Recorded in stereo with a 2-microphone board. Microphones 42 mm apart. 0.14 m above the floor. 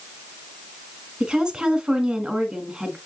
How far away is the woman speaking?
About 1.7 m.